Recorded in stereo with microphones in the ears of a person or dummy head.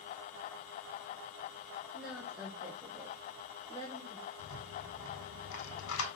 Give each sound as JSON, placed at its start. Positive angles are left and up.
{"t": 1.9, "sound": "a woman speaking", "side_deg": 0, "distance_m": 1.2}
{"t": 4.4, "sound": "a rattle", "side_deg": 75, "distance_m": 2.5}